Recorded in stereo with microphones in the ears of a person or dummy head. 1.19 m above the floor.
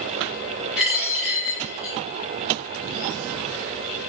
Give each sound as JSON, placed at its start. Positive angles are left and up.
{"t": 0.8, "sound": "a dropped coin", "side_deg": -5, "distance_m": 0.7}